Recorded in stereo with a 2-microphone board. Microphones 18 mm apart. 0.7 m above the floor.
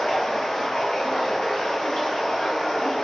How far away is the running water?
About 1.4 m.